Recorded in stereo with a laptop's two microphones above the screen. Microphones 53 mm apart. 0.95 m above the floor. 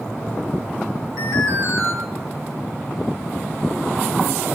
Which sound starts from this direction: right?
An alarm, at 1.2 s.